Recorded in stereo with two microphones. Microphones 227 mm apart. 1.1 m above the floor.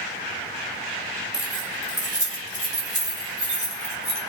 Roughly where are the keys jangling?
Right.